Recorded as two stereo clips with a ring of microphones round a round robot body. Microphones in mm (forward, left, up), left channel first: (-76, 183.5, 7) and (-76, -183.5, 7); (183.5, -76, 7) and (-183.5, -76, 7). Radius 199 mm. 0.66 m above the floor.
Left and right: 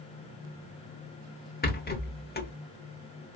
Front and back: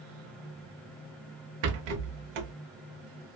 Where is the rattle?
155° left, 1.1 m.